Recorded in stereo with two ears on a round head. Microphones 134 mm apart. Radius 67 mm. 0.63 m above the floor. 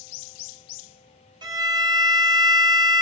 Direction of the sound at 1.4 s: 25° right (ahead or behind).